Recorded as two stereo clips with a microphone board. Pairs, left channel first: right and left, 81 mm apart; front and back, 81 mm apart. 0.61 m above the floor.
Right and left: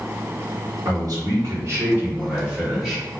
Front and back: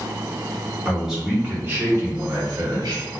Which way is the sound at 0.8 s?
95° left.